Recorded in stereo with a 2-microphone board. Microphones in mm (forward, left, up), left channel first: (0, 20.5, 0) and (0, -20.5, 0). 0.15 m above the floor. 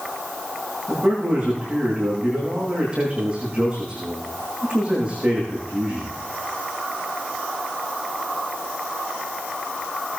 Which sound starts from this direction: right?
A man speaking, at 0.9 s.